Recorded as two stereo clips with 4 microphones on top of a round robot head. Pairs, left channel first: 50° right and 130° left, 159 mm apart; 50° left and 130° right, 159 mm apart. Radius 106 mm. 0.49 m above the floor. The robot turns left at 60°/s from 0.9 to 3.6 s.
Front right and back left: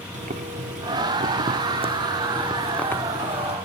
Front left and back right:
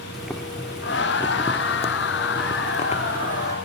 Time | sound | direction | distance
0.1 | boiling | 145° left | 1.1 m